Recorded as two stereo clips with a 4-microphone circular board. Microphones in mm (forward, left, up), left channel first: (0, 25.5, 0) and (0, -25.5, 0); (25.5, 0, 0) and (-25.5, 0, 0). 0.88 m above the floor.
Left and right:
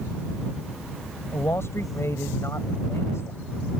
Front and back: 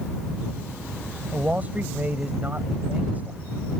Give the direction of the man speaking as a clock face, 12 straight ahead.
8 o'clock.